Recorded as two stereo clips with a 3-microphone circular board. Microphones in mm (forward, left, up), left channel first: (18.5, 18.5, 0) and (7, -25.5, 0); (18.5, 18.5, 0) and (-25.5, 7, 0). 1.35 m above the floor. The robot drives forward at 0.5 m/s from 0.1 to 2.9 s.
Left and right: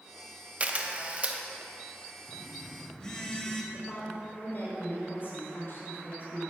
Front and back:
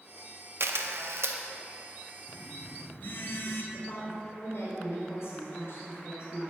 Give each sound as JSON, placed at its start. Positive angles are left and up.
{"t": 0.6, "sound": "a camera shutter", "azimuth_deg": -160, "distance_m": 0.9}
{"t": 2.3, "sound": "a phone buzzing", "azimuth_deg": 5, "distance_m": 1.9}
{"t": 3.7, "sound": "a woman speaking", "azimuth_deg": 35, "distance_m": 4.5}